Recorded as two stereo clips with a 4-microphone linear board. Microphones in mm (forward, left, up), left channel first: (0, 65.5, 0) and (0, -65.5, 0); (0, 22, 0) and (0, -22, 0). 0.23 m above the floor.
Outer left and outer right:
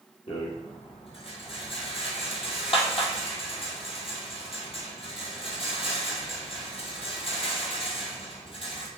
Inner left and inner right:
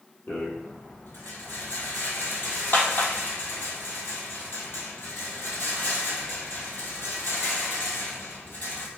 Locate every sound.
0.3 s a rattle: 50° left (ahead or behind), 1.0 m